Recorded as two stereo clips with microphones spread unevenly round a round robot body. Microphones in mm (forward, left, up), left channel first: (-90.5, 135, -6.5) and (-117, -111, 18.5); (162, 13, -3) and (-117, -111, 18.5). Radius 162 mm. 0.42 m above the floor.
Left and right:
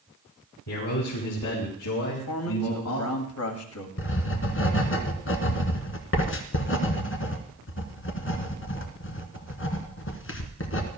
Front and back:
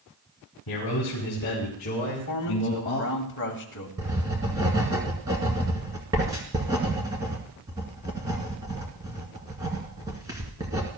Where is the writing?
125° left, 1.7 m.